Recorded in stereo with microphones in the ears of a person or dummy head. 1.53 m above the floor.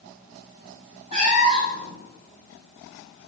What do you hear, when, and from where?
1.1 s a cat meowing: 35° right (ahead or behind), 1.0 m